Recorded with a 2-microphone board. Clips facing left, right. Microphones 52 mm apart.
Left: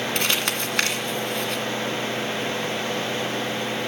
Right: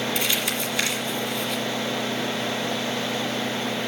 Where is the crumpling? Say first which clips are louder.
Left 1 dB; 55° left (ahead or behind), 1.9 m.